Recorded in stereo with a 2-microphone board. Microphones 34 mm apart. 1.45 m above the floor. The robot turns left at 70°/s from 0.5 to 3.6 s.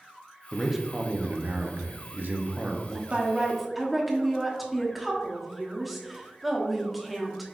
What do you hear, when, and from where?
0.5 s a man speaking: 5° left, 0.7 m; by 3.0 s 170° right, 0.7 m
3.1 s a woman speaking: 145° right, 1.0 m; by 7.5 s straight behind, 1.0 m